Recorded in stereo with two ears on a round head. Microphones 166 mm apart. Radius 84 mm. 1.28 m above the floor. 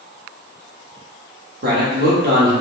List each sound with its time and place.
1.6 s a man speaking: 55° right (ahead or behind), 0.8 m